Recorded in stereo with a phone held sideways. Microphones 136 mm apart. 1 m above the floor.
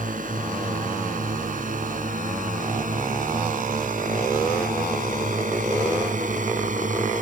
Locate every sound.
0.0 s a drone: 85° right; by 7.2 s 75° right (ahead or behind)